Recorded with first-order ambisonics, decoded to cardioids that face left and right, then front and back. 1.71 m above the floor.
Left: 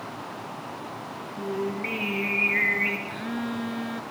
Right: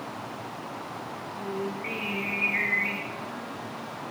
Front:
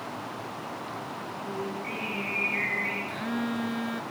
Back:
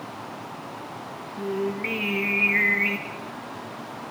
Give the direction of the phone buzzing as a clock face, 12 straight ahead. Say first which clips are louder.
Left 4 dB, front 3 dB; 11 o'clock.